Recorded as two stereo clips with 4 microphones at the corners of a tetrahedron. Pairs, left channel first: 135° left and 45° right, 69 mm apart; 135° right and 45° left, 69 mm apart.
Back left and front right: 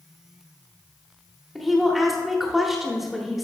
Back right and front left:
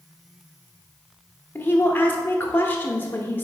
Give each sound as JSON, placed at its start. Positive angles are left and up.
{"t": 1.6, "sound": "a woman speaking", "azimuth_deg": -130, "distance_m": 0.8}